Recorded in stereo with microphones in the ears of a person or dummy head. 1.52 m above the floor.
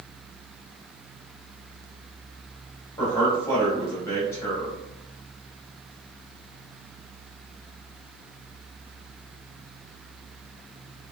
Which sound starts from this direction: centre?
A man speaking, at 3.0 s.